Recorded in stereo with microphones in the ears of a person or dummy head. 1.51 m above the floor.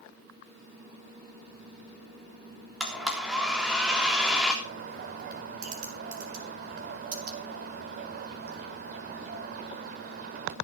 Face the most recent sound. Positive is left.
turn(degrees=-45)  # may be behind; listen again after turning